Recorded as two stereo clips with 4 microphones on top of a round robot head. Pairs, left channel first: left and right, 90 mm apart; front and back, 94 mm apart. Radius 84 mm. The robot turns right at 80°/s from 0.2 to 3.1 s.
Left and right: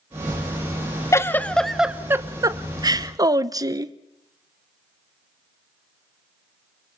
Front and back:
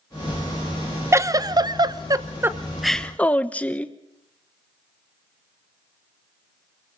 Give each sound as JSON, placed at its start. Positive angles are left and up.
{"t": 1.1, "sound": "a giggle", "azimuth_deg": 135, "distance_m": 1.1}